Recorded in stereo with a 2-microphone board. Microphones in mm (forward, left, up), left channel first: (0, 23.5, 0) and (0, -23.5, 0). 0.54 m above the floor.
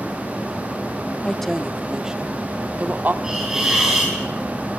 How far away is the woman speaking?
About 1.1 m.